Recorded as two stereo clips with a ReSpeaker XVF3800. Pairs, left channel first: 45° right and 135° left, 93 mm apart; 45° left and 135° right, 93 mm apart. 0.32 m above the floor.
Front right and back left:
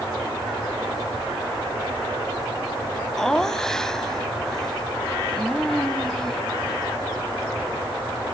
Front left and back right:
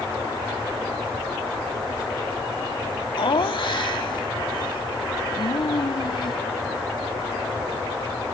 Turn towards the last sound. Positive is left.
turn(degrees=40)